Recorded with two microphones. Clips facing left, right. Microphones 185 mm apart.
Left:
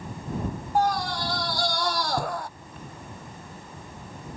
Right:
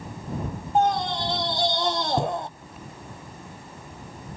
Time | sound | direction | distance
0.8 | a scream | 20° right (ahead or behind) | ?